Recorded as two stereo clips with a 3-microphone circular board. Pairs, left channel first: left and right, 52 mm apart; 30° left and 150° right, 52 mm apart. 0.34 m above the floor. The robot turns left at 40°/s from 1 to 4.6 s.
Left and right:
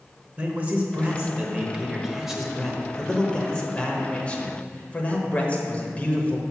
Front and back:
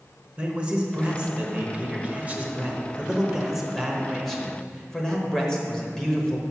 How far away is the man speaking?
About 1.0 m.